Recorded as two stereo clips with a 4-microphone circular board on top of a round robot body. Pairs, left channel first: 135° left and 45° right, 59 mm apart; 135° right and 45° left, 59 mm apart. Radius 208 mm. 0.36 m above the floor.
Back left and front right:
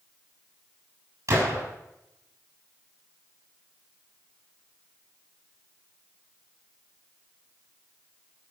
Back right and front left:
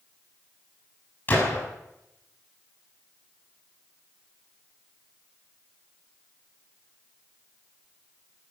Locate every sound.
1.3 s a gunshot: 85° right, 7 m